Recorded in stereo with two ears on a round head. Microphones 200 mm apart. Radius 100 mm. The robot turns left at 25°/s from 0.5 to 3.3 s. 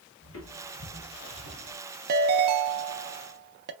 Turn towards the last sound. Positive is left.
turn(degrees=-95)